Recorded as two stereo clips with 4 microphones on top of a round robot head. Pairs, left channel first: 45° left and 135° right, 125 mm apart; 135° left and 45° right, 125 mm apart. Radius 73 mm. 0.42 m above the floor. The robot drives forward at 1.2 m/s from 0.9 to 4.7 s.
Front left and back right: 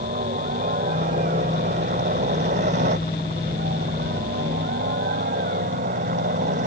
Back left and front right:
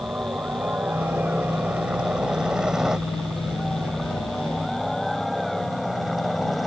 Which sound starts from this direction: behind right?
A helicopter, at 0.0 s.